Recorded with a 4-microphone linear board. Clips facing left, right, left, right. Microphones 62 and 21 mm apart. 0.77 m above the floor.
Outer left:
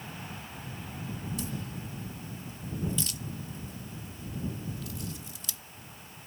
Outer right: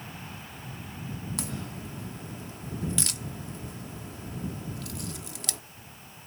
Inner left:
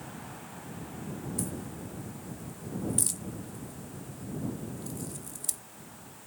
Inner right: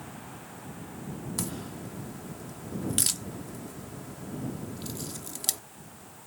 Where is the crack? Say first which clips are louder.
Outer right 1 dB, inner right 1 dB; 60° right (ahead or behind).